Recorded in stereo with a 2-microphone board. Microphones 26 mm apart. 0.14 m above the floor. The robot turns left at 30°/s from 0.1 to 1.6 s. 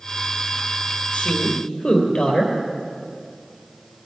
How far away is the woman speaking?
About 3.5 m.